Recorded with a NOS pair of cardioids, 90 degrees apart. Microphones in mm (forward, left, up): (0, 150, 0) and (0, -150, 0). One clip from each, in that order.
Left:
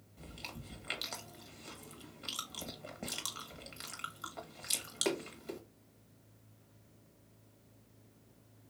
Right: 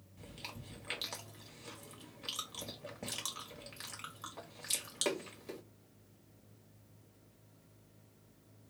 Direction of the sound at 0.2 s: 10° left.